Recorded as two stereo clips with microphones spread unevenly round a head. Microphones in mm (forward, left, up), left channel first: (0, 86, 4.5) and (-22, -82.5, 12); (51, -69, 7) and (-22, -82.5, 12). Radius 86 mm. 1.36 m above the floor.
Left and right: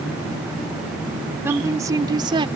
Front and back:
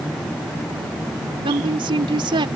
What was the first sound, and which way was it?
A woman speaking, 175° right.